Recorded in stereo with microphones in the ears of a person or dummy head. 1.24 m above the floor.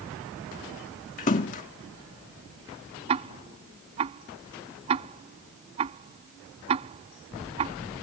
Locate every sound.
1.2 s a splash: 40° left (ahead or behind)
3.1 s ticking: 30° right (ahead or behind)